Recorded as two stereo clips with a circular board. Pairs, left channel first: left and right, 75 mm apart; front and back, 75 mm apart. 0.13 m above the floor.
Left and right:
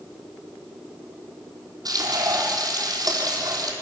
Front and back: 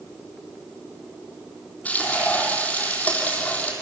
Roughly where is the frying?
Right.